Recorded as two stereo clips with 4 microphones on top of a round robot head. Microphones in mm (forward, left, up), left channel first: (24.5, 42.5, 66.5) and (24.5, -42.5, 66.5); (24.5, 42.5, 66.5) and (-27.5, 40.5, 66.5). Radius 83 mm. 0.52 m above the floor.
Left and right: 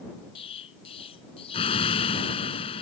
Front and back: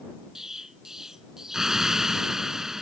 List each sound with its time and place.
0.3 s an explosion: 100° left